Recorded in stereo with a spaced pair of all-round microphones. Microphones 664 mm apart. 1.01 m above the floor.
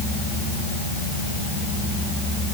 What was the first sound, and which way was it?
Only background noise.